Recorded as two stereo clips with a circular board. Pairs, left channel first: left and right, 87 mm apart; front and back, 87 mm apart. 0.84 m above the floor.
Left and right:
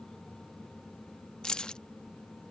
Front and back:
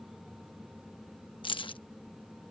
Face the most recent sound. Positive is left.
turn(degrees=10)